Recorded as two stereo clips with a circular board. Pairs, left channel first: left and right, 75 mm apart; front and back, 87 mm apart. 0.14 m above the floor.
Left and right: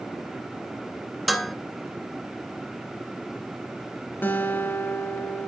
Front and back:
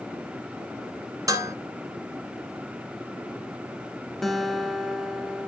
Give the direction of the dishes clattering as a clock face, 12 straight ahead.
6 o'clock.